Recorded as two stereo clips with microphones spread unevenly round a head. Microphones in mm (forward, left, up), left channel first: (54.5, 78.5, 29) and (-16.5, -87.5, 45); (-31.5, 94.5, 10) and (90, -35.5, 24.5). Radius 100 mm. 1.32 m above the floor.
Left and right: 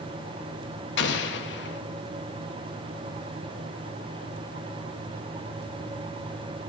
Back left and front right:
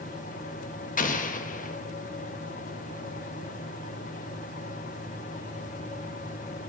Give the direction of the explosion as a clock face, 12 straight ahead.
9 o'clock.